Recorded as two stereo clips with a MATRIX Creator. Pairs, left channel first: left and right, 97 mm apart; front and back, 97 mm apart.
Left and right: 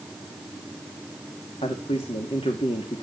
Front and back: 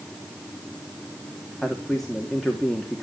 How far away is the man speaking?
About 3 m.